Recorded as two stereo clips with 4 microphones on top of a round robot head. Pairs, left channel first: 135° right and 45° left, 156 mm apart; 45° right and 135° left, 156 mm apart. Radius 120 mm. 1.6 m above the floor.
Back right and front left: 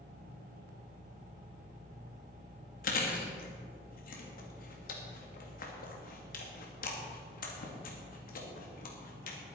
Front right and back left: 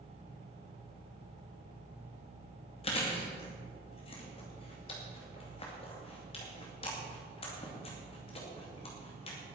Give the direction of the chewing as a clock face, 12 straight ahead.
3 o'clock.